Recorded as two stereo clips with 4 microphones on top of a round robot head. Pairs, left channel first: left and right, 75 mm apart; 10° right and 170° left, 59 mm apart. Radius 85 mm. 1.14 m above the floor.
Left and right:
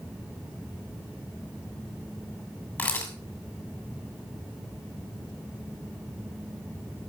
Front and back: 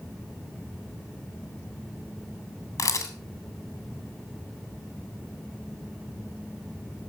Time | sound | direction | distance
2.8 | a camera shutter | 20° left | 3 m